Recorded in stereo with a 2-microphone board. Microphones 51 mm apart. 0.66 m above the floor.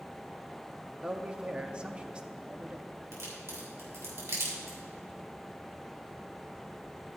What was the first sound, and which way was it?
A man speaking, 20° right (ahead or behind).